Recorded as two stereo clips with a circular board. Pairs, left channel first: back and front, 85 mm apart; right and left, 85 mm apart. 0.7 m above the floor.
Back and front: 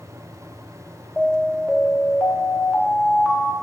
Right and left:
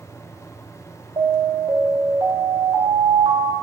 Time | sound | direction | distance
1.2 | an alarm | 95° left | 0.8 m